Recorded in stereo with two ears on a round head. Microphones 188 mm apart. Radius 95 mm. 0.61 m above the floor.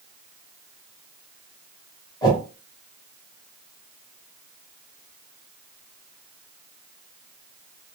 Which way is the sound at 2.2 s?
20° left (ahead or behind).